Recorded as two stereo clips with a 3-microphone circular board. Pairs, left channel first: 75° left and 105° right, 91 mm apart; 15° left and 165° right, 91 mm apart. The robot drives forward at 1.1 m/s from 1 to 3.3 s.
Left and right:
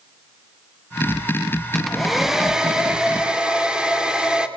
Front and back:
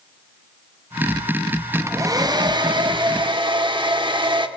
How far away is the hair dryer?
About 0.8 m.